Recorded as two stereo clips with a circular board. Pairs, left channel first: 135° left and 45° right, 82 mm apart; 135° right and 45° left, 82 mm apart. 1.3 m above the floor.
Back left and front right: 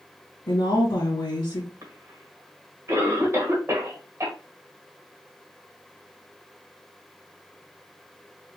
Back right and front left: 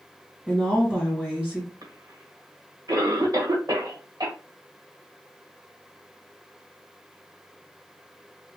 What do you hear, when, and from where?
0.5 s a woman speaking: 130° left, 1.7 m
1.8 s a cough: 10° left, 1.7 m